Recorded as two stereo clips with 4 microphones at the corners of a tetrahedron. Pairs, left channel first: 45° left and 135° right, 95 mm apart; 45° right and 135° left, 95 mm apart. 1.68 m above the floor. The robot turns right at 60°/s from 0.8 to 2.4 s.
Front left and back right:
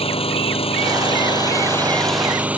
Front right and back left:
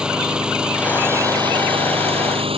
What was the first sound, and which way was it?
An engine running, 55° left.